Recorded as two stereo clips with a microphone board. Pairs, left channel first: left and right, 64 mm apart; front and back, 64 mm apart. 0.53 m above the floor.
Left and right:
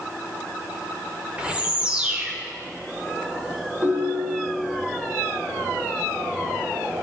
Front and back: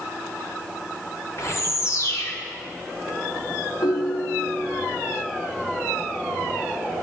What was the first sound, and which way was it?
A bird, 15° right.